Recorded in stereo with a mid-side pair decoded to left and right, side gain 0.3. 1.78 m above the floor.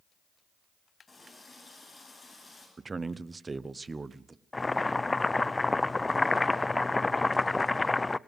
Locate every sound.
1.1 s a running tap: 40° left, 10 m
2.8 s a man speaking: 40° right, 1.0 m
4.5 s boiling: 25° left, 0.7 m